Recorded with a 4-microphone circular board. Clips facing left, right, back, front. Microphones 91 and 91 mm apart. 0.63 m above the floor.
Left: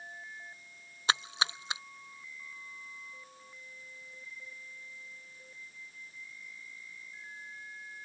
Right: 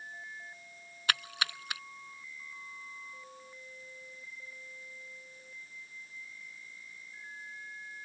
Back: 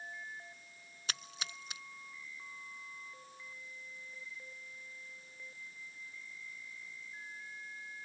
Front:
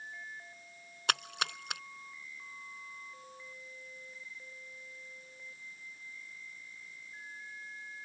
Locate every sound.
1.1 s a splash: 20° left